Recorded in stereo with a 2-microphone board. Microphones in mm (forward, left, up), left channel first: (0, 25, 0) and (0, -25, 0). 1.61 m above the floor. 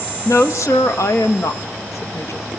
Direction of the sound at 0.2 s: 75° left (ahead or behind).